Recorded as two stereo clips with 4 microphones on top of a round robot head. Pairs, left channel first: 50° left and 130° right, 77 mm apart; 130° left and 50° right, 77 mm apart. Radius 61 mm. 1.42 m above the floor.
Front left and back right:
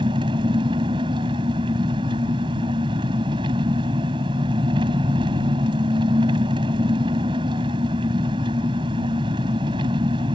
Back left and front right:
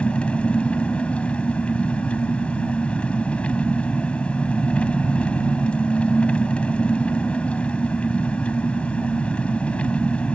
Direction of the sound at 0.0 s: 155° right.